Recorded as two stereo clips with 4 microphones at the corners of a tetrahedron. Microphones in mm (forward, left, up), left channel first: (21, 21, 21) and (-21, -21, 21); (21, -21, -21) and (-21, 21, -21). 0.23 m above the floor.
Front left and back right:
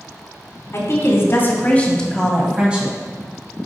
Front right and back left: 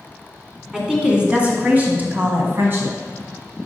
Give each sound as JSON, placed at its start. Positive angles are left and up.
{"t": 0.7, "sound": "a woman speaking", "azimuth_deg": 60, "distance_m": 2.0}